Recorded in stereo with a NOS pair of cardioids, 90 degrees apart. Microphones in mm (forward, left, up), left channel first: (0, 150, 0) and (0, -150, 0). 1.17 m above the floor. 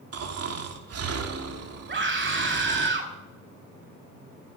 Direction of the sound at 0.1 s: 50° right.